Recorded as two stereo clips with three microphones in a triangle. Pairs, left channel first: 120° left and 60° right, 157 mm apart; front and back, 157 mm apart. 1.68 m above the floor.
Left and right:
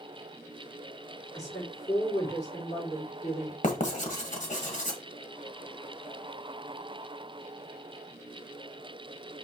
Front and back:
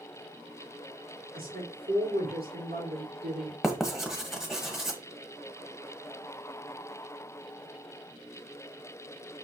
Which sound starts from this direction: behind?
A woman speaking, at 1.3 s.